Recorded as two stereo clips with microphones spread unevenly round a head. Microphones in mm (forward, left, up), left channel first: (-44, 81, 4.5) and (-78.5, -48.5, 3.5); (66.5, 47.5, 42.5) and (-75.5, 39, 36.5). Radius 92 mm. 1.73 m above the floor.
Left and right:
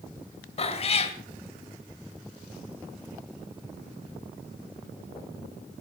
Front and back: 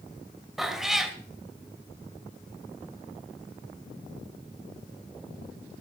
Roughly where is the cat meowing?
Left.